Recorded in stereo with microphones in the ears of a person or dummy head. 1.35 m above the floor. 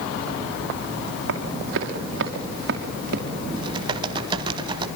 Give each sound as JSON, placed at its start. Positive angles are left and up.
{"t": 1.3, "sound": "running footsteps", "side_deg": -70, "distance_m": 4.0}
{"t": 3.6, "sound": "typing on a keyboard", "side_deg": -30, "distance_m": 2.5}